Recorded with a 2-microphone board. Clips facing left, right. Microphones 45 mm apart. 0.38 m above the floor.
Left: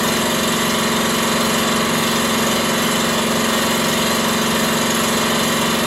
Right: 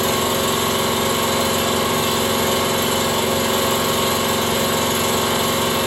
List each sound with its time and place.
0.0 s an engine running: 85° left, 1.2 m